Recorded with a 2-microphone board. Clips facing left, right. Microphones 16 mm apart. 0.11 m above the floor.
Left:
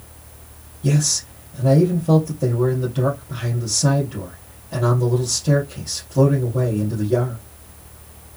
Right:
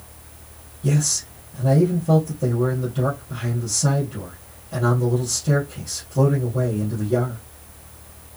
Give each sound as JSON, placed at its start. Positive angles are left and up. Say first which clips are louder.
{"t": 0.8, "sound": "a man speaking", "louder": "left 2 dB", "side_deg": 25, "distance_m": 2.5}